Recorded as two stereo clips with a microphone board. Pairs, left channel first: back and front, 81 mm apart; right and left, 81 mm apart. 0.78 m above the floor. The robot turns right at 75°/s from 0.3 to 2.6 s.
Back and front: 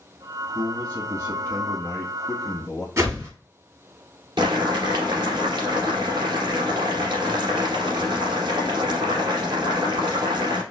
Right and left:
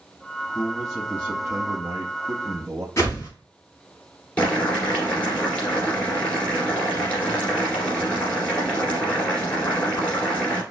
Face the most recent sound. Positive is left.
turn(degrees=-15)